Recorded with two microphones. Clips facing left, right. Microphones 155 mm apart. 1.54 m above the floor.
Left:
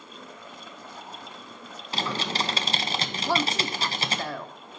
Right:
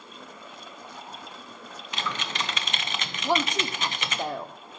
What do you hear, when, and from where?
1.9 s typing on a keyboard: 35° left (ahead or behind), 0.6 m
3.2 s a woman speaking: 15° right (ahead or behind), 0.6 m